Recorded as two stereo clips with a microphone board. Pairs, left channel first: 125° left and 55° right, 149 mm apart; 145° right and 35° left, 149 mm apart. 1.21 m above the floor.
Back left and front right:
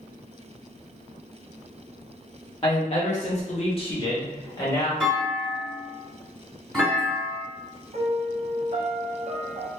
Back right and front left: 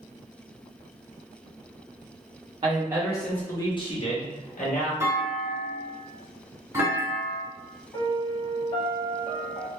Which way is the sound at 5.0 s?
45° left.